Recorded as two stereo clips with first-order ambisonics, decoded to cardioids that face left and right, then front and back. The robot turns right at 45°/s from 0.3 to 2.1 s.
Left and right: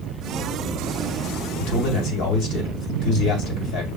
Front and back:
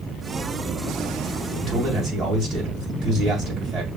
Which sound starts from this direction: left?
A man speaking, at 1.6 s.